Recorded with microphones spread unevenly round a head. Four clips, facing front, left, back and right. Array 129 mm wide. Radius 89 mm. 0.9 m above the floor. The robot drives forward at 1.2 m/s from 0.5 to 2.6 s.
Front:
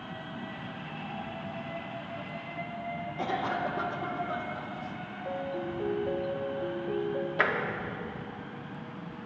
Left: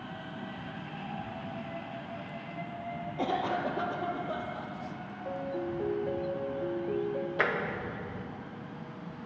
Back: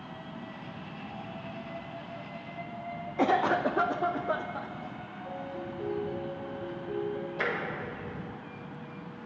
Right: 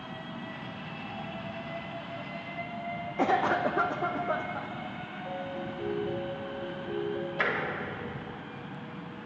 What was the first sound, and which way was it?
A cough, 115° right.